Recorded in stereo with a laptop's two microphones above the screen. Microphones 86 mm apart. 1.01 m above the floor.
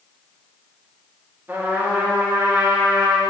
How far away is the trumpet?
About 2.5 m.